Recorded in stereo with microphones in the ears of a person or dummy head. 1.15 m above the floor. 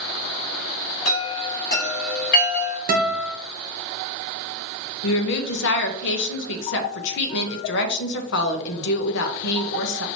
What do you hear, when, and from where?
1.1 s a chime: 55° left (ahead or behind), 2.5 m
2.9 s a guitar: 45° right (ahead or behind), 0.8 m
5.0 s a woman speaking: 60° left (ahead or behind), 0.9 m